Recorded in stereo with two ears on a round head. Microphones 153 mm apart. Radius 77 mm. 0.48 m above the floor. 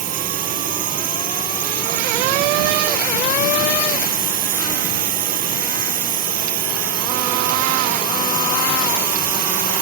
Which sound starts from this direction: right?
A drone, at 0.0 s.